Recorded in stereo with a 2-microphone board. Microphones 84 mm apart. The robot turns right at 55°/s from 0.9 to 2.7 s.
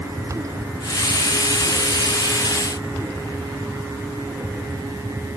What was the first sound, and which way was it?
Only background noise.